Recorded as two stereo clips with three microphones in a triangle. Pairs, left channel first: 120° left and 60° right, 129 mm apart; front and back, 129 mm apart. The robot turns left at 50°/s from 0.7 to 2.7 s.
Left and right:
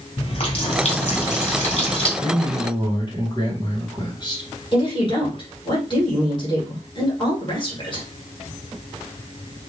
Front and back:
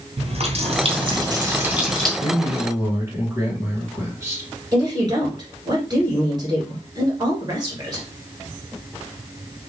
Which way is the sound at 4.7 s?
145° left.